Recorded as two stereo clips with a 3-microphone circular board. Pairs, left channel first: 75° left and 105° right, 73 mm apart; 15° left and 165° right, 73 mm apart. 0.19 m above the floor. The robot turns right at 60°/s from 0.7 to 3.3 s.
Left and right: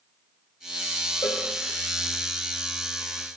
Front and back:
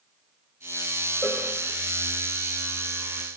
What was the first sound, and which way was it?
A cowbell, 65° left.